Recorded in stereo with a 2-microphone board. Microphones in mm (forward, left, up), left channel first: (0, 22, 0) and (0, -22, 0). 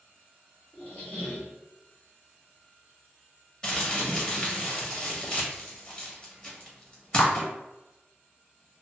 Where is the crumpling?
20° left (ahead or behind), 1.0 m.